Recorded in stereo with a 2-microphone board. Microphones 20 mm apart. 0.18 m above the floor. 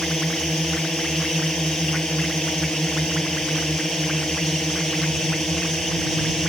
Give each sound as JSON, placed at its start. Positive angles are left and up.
{"t": 0.0, "sound": "a drone", "side_deg": 65}